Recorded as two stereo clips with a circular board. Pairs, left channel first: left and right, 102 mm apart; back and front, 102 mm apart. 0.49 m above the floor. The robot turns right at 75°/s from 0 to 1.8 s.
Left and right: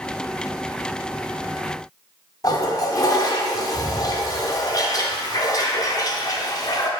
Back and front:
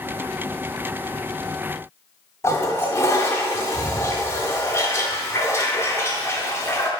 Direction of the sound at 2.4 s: 125° left.